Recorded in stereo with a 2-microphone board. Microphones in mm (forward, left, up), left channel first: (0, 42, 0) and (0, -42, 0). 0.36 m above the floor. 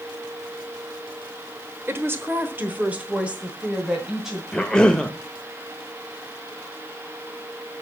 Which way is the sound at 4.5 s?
10° left (ahead or behind).